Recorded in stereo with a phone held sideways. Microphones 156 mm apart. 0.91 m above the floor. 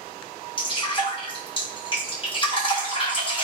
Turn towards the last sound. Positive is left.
turn(degrees=35)  # may be behind; listen again after turning